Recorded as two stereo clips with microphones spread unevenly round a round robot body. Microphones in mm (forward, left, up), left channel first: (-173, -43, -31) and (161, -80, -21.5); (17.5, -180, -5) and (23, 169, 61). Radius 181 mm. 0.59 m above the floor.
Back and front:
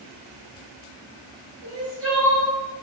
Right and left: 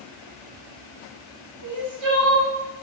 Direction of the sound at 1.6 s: 55° left.